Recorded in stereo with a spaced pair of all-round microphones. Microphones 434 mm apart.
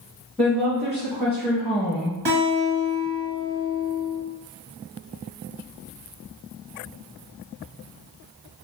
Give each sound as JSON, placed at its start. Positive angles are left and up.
{"t": 0.4, "sound": "a woman speaking", "side_deg": 0, "distance_m": 1.0}
{"t": 2.2, "sound": "a guitar", "side_deg": -65, "distance_m": 1.1}